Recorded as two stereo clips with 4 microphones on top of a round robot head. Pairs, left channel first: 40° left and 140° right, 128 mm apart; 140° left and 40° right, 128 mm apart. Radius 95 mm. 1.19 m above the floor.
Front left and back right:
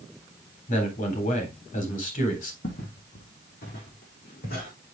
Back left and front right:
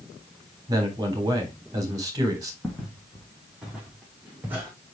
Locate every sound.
0.7 s a man speaking: 20° left, 3.5 m
2.6 s footsteps: 55° left, 3 m; by 4.7 s 35° left, 4 m